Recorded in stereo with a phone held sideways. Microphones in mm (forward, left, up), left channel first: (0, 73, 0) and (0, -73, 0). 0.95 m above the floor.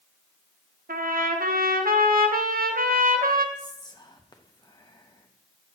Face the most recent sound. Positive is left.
turn(degrees=30)  # may be behind; listen again after turning